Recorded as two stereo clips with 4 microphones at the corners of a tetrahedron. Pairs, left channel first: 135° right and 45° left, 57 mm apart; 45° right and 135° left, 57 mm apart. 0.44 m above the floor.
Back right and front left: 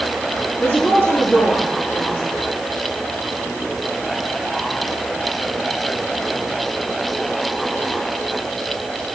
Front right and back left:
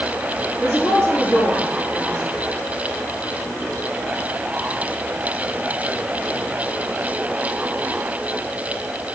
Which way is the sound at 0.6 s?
175° right.